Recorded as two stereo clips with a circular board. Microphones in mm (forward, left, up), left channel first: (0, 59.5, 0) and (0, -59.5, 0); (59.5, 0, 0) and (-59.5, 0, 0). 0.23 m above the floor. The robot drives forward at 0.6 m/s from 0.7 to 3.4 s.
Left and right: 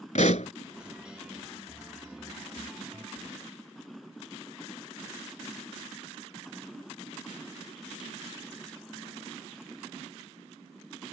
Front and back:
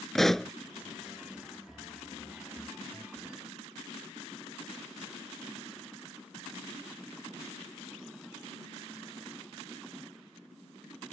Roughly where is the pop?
Left.